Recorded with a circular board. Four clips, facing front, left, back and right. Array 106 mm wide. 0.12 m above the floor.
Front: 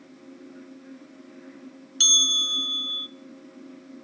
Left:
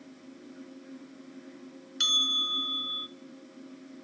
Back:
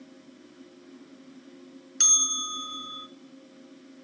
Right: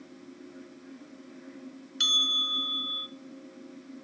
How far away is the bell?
About 0.5 m.